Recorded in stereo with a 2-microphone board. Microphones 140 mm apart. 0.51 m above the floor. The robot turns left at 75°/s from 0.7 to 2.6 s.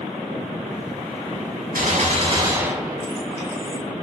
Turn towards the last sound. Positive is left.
turn(degrees=-160)